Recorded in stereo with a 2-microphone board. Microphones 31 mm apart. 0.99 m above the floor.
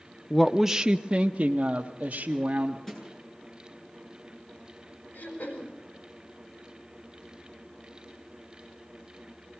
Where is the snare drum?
15° left (ahead or behind), 9 m.